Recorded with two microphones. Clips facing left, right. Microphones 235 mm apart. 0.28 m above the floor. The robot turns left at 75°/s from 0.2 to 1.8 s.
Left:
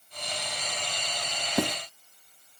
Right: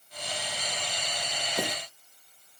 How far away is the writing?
About 0.7 m.